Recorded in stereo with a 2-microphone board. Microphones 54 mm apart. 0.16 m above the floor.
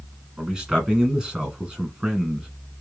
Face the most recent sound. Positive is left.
turn(degrees=-10)  # may be behind; listen again after turning